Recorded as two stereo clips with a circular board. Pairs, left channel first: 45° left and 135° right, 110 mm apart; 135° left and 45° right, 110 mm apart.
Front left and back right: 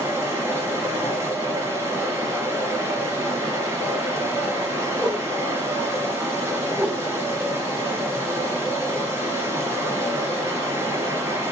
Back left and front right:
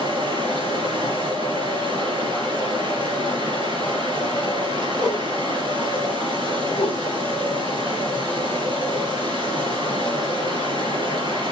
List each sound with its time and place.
0.0 s running water: 75° right, 2.5 m
5.0 s a whoosh: 130° right, 2 m
6.7 s a whoosh: 145° left, 0.7 m